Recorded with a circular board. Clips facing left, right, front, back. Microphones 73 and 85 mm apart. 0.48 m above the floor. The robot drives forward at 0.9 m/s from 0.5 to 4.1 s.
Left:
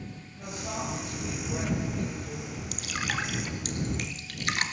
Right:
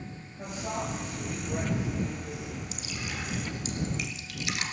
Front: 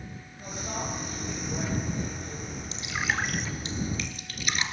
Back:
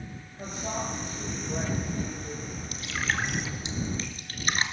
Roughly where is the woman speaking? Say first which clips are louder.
Right 1 dB, back 2 dB; behind right.